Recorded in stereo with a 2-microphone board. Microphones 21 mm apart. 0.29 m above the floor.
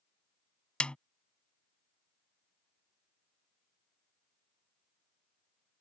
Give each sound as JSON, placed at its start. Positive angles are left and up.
{"t": 0.8, "sound": "a snare drum", "side_deg": 55}